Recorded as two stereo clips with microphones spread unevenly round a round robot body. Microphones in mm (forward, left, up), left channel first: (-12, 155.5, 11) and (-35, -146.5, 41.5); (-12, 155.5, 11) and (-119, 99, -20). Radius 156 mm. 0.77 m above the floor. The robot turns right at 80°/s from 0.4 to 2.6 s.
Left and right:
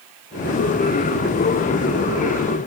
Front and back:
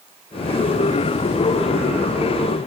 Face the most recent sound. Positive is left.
No sound to turn to.